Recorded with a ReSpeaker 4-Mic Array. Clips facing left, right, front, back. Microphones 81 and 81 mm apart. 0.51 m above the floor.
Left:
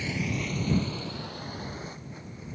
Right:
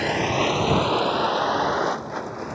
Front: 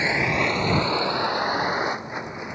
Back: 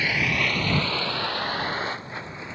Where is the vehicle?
65° right; by 2.5 s 75° right.